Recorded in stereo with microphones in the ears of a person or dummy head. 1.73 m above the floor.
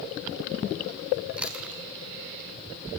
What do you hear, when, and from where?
1.4 s chewing: 5° right (ahead or behind), 0.6 m